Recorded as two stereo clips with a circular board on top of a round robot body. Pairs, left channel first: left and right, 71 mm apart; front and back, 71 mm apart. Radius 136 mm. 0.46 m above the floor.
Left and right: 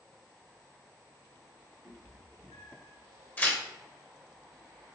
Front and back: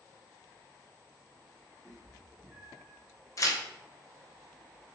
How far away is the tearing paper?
About 1.0 m.